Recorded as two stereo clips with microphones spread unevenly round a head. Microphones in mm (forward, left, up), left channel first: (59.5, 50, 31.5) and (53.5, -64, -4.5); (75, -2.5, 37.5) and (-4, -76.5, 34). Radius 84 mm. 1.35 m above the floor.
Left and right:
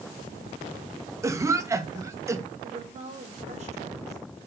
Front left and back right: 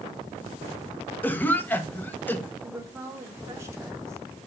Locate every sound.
1.2 s a cough: 30° right, 2 m
2.6 s a woman speaking: 75° right, 4 m